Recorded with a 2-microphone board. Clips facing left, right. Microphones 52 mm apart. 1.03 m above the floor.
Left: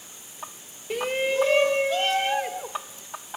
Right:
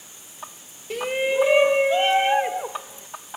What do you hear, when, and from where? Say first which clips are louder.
0.9 s a shout: right 2 dB; 5° left (ahead or behind); by 3.1 s 30° right (ahead or behind)